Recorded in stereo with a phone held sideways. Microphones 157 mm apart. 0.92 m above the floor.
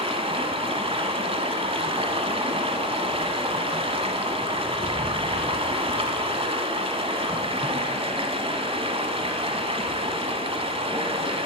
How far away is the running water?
About 1.0 m.